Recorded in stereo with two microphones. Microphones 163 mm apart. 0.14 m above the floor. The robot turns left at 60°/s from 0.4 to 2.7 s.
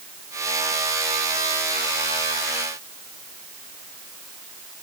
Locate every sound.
Only background noise.